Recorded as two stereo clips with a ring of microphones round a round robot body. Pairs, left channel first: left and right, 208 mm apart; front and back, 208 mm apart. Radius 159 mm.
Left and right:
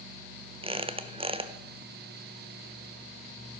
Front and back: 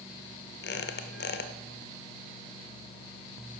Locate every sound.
0.6 s a squeak: 25° right, 0.9 m